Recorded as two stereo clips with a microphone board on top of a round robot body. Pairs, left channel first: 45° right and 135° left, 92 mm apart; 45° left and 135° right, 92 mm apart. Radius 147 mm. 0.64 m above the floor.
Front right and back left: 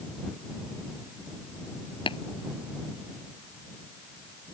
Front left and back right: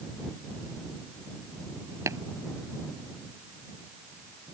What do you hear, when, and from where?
2.1 s tapping: 75° right